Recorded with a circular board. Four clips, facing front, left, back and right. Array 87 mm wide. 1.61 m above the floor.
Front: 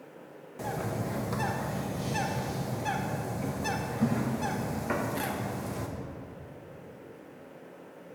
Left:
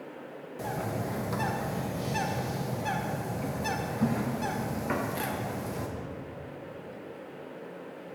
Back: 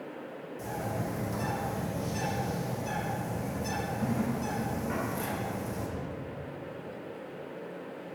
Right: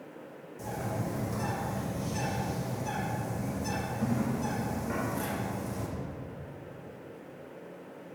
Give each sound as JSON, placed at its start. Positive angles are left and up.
{"t": 0.6, "sound": "a bird", "azimuth_deg": 45, "distance_m": 1.1}